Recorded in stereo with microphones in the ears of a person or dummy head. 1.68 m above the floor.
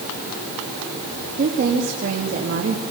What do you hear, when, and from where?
1.4 s a woman speaking: 45° right (ahead or behind), 3 m